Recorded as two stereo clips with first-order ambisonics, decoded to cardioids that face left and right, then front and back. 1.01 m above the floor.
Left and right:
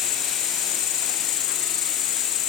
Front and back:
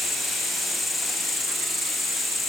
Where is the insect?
85° left.